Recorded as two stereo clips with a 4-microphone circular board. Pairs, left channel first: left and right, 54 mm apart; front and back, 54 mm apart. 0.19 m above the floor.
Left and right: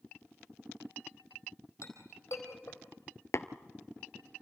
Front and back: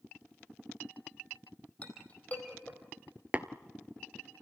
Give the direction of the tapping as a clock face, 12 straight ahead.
8 o'clock.